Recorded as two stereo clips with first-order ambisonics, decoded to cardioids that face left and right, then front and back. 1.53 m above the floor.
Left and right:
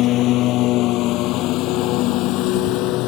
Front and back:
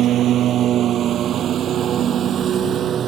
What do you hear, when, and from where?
0.0 s a lawn mower: 130° left; by 3.1 s 120° left